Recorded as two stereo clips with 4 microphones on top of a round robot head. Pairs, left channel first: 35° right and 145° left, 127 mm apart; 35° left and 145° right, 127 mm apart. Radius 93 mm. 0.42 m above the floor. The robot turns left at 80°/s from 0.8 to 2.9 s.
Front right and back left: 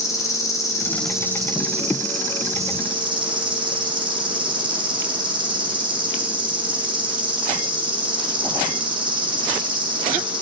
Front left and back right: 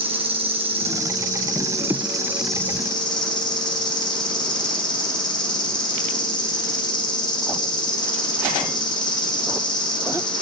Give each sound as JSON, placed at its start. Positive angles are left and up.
{"t": 0.0, "sound": "an insect", "azimuth_deg": -100, "distance_m": 2.5}